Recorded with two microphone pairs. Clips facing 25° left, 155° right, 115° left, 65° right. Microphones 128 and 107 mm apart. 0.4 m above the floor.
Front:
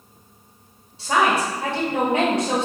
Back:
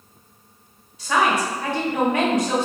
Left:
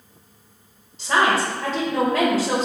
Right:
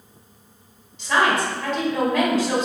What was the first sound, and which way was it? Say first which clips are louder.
A woman speaking: front 1 dB, left 1 dB; 70° left.